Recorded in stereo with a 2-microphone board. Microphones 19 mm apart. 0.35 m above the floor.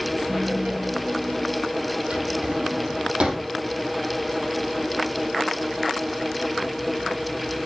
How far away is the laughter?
About 1.5 m.